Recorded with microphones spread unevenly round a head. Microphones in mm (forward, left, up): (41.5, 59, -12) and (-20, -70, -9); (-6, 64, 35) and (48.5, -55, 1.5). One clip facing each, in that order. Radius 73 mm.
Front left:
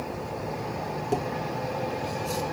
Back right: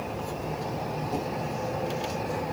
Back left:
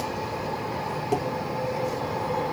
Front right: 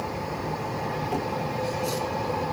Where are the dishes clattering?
75° left, 3.5 m.